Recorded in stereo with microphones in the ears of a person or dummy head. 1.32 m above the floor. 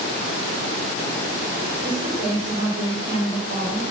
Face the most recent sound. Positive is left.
turn(degrees=-75)  # may be behind; listen again after turning